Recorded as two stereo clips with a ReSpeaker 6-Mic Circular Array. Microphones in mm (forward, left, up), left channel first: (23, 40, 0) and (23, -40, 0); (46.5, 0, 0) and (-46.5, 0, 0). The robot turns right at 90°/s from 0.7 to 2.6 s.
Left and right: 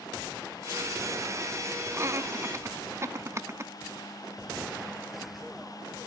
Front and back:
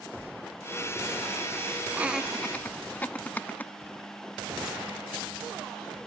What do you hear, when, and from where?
1.9 s laughter: 120° right, 0.7 m; by 3.7 s 60° right, 0.7 m